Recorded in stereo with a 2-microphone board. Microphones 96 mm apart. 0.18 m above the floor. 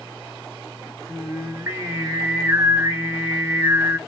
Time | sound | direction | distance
1.1 | singing | 25° right (ahead or behind) | 0.6 m